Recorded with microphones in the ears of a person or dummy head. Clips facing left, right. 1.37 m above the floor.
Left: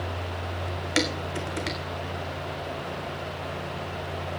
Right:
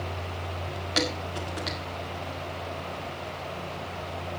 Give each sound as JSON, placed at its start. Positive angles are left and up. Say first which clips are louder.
{"t": 1.0, "sound": "dishes clattering", "louder": "left 2 dB", "side_deg": 30, "distance_m": 2.0}